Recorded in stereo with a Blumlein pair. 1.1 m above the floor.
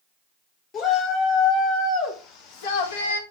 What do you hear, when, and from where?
0.7 s a shout: 25° left, 4 m; by 3.2 s 70° left, 1.3 m